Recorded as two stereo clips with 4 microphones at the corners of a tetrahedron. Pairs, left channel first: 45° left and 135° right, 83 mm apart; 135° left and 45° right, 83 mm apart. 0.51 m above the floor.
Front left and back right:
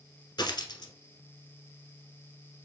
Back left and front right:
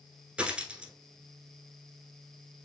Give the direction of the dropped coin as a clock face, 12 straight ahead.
11 o'clock.